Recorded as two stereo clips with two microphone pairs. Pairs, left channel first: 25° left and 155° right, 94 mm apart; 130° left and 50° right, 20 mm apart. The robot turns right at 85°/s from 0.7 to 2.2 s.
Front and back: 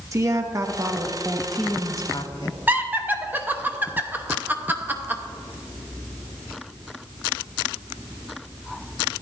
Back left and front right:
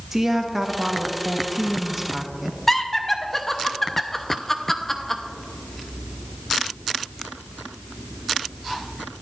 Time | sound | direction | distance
0.1 | a woman speaking | 120° right | 0.9 m
2.7 | laughter | 170° right | 0.7 m